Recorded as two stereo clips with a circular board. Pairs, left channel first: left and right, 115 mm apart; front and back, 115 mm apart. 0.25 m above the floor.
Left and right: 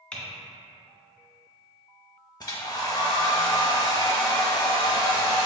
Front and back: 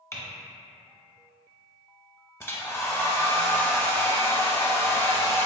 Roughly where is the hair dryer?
Ahead left.